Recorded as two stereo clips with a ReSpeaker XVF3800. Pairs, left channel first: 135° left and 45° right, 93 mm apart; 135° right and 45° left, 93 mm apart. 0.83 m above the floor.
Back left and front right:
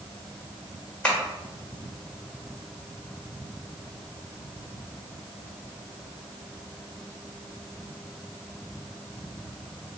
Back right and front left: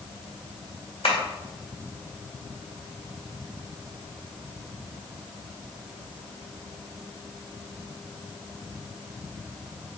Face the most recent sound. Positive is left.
turn(degrees=-150)